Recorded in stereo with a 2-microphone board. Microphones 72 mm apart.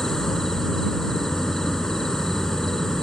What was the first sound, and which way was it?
An insect, 5° left (ahead or behind).